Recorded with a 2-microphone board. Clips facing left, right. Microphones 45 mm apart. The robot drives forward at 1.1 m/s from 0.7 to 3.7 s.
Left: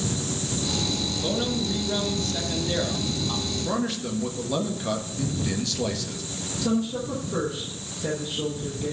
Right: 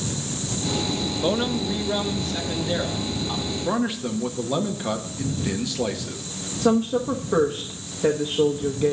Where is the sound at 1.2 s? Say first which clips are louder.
Right 4 dB; 40° right (ahead or behind), 0.8 m; by 3.5 s 10° right (ahead or behind), 3 m.